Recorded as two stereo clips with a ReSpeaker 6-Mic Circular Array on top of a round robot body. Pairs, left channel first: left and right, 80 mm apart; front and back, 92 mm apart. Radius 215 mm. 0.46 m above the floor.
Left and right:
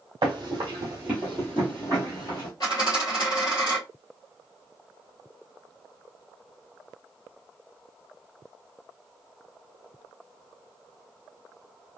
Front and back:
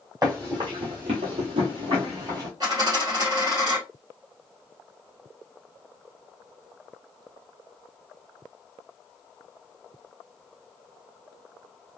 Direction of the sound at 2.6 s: 135° left.